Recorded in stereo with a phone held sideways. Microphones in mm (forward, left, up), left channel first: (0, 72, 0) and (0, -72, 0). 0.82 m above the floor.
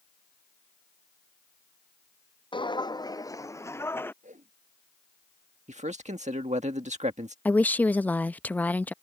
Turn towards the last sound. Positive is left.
turn(degrees=10)  # may be behind; listen again after turning